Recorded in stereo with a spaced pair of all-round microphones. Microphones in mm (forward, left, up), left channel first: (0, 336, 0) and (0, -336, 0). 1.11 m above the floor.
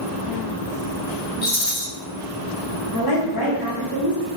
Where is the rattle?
70° left (ahead or behind), 0.9 m.